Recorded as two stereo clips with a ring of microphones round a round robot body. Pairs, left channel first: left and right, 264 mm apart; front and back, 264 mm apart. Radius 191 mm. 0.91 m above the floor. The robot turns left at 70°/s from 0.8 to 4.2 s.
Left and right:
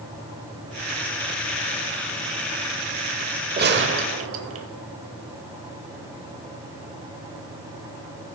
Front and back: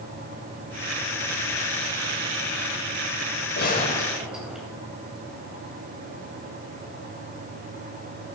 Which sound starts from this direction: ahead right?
A gunshot, at 3.6 s.